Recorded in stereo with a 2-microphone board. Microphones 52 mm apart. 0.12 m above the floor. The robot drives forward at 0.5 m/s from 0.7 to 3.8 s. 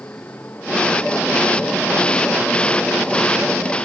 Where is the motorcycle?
35° left (ahead or behind).